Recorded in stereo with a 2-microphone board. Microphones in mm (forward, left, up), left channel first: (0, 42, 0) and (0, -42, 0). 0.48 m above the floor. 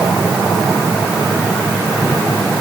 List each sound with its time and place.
Only background noise.